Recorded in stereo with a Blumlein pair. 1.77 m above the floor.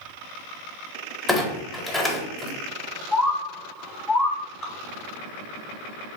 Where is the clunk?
5° left, 0.8 m.